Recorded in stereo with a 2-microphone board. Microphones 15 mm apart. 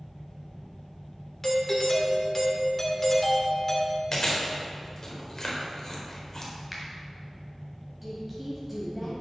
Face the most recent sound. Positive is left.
turn(degrees=-10)  # may be behind; listen again after turning